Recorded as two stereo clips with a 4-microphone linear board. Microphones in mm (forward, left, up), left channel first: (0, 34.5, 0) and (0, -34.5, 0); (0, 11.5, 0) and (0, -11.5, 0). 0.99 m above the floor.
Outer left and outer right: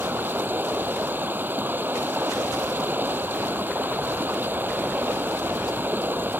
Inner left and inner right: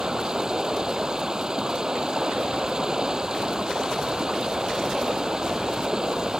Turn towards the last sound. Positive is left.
turn(degrees=-30)  # may be behind; listen again after turning